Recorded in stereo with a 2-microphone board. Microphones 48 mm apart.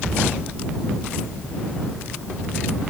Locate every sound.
Only background noise.